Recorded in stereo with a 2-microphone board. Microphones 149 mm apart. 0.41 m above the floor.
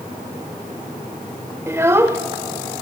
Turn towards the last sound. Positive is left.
turn(degrees=-15)  # may be behind; listen again after turning